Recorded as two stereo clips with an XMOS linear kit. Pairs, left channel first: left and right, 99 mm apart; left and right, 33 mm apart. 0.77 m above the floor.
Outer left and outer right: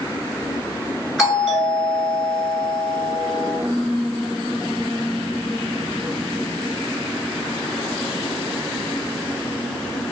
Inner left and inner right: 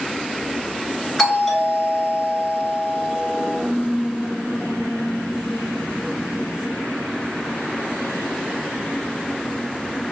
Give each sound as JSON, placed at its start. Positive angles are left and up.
{"t": 1.2, "sound": "a doorbell", "side_deg": -5, "distance_m": 1.8}